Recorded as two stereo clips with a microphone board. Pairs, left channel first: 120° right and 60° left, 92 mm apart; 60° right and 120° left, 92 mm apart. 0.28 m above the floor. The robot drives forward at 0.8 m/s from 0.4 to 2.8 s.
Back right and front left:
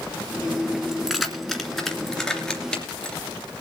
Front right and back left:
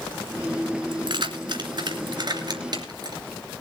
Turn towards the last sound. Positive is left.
turn(degrees=160)